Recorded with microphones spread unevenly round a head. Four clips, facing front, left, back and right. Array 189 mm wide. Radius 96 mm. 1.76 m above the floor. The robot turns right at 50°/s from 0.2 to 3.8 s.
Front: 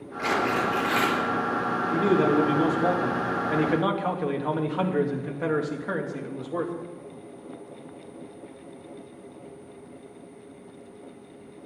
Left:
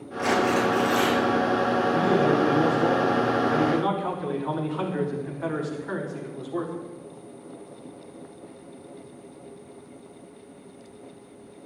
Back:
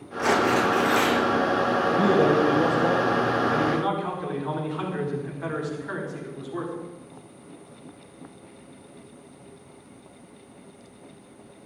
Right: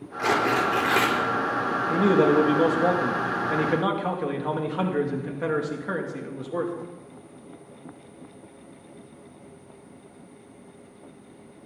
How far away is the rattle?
No rattle in this recording.